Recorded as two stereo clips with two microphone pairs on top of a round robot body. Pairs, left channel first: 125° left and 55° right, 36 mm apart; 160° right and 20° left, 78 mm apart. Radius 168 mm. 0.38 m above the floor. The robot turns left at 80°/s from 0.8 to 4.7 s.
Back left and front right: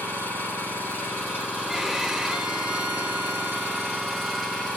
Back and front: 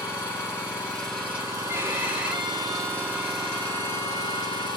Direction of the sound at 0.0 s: 135° left.